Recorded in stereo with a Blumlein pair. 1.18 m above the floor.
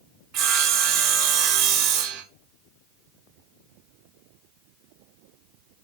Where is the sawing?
35° right, 0.6 m.